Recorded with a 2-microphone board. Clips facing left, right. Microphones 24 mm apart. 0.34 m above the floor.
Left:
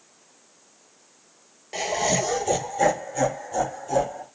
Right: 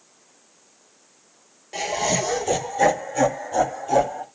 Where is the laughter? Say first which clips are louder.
Even; 10° left (ahead or behind), 1.2 m; by 4.2 s 30° right (ahead or behind), 1.9 m.